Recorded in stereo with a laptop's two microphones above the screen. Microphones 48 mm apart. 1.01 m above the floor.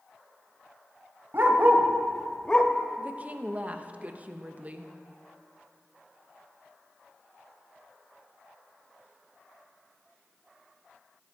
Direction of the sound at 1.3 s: 50° right (ahead or behind).